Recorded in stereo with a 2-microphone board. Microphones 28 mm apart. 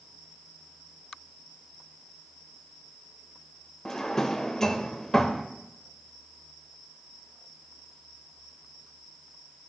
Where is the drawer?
15° left (ahead or behind), 0.6 m.